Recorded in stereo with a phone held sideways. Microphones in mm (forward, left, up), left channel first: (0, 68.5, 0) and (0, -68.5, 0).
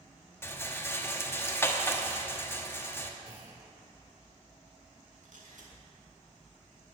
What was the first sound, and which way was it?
A rattle, 20° left (ahead or behind).